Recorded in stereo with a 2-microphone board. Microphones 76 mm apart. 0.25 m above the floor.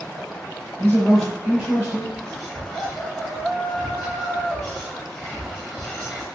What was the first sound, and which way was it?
A man speaking, 25° left (ahead or behind).